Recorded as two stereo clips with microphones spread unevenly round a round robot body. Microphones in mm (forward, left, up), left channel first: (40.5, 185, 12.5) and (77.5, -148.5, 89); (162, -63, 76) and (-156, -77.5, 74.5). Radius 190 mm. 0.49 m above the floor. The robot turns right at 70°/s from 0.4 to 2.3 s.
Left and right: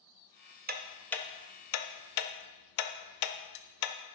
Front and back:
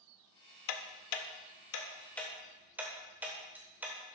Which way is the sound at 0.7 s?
15° right.